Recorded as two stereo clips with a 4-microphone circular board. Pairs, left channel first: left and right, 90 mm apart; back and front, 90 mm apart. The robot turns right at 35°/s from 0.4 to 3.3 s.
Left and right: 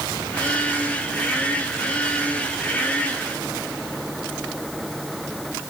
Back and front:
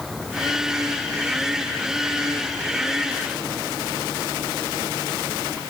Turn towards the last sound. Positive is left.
No sound to turn to.